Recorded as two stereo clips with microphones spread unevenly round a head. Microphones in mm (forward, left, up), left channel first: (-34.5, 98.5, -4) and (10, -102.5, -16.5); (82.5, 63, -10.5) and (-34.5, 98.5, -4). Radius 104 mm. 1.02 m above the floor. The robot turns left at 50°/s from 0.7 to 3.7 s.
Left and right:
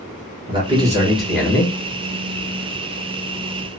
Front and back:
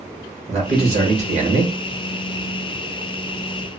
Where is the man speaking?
140° right, 1.2 m; by 1.8 s 170° left, 1.2 m.